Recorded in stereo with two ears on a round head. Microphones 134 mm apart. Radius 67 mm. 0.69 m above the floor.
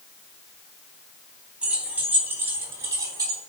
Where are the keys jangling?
10° right (ahead or behind), 3.5 m; by 3.4 s 25° right (ahead or behind), 4 m.